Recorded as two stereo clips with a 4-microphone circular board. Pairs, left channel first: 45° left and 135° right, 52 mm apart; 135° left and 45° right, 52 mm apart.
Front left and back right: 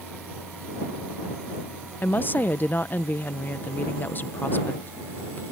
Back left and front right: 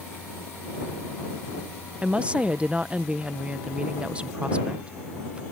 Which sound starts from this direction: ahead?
A woman speaking, at 2.0 s.